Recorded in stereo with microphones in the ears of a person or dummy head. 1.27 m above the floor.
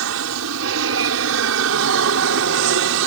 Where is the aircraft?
70° right (ahead or behind); by 3.1 s 65° right (ahead or behind).